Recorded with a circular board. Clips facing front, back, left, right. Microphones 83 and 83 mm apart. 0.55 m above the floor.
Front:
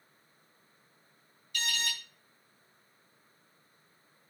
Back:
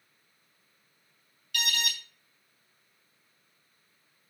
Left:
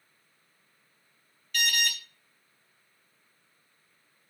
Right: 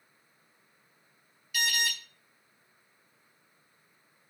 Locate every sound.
1.5 s an alarm: 175° right, 4 m